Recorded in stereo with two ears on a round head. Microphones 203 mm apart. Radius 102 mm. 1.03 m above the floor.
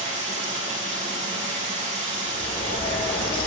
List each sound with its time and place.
0.0 s running water: 35° right (ahead or behind), 5.5 m
2.2 s a bird: 20° left (ahead or behind), 1.1 m